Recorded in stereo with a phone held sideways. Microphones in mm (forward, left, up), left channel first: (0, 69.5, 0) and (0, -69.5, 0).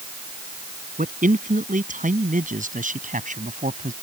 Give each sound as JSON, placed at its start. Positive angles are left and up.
{"t": 1.0, "sound": "a man speaking", "side_deg": -70}